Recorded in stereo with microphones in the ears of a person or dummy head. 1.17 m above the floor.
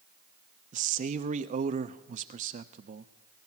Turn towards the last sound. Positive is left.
turn(degrees=-40)  # may be behind; listen again after turning